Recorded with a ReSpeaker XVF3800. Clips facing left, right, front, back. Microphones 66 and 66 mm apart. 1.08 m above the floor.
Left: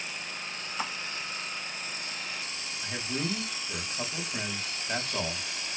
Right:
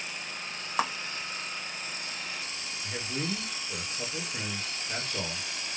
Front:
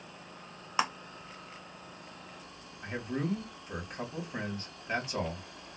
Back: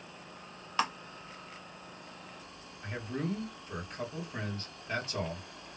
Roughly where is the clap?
Right.